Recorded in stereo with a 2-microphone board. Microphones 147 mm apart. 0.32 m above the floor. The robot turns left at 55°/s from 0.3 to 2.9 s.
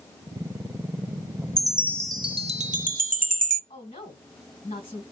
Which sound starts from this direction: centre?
A chime, at 1.6 s.